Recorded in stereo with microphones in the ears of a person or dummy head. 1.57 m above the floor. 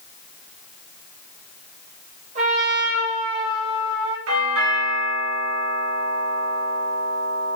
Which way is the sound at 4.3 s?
85° right.